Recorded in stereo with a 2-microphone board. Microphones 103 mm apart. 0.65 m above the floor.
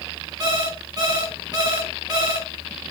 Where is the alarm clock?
40° right (ahead or behind), 3.5 m.